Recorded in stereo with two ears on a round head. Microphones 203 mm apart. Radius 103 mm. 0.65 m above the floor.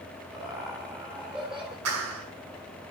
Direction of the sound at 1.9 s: 70° right (ahead or behind).